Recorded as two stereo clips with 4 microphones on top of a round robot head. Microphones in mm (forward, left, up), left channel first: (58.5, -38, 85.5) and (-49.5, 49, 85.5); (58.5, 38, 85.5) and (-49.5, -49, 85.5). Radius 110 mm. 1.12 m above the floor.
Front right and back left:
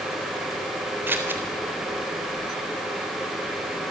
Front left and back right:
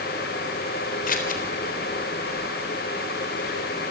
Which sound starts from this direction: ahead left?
Scissors, at 1.1 s.